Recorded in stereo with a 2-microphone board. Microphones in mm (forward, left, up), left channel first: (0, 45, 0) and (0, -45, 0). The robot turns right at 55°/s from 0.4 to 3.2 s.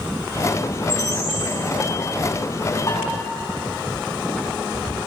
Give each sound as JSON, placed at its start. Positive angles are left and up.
{"t": 0.9, "sound": "a bird", "azimuth_deg": 125, "distance_m": 4.5}
{"t": 2.9, "sound": "dishes clattering", "side_deg": 55, "distance_m": 7.5}